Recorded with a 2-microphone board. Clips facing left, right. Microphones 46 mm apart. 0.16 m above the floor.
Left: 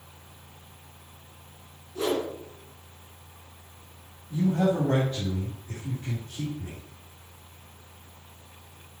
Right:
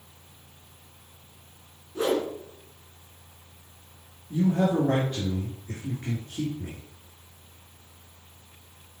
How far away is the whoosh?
About 2 m.